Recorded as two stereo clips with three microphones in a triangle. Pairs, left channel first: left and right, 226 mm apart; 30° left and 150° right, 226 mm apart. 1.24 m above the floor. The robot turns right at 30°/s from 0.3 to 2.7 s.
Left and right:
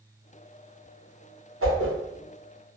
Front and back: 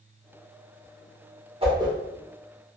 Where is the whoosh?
85° right, 0.7 m; by 1.9 s 75° right, 0.7 m.